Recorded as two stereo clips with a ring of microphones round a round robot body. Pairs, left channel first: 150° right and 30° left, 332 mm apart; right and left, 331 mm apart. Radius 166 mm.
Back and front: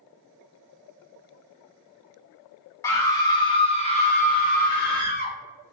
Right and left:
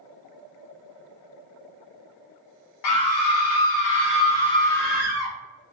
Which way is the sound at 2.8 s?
70° right.